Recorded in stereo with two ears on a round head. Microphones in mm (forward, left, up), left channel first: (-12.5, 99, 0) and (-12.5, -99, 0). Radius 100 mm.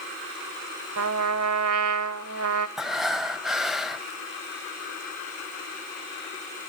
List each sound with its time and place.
1.0 s a trumpet: 70° right (ahead or behind), 0.9 m
2.8 s breathing: centre (ahead or behind), 1.1 m